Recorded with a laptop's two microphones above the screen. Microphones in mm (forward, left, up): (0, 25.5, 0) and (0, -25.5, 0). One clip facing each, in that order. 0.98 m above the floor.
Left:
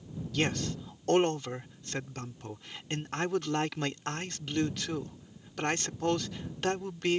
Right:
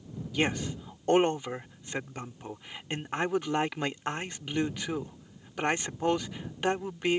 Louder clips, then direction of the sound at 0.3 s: Right 2 dB; 15° right (ahead or behind).